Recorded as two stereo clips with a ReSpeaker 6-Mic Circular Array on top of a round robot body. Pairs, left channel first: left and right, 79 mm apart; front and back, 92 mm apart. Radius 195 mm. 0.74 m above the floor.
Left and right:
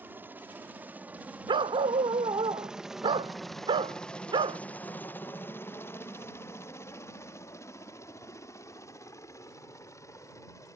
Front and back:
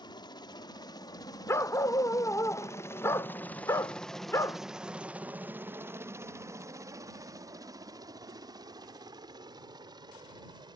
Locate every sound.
0.0 s a helicopter: 25° right; by 10.8 s 140° left
1.5 s a dog barking: 65° right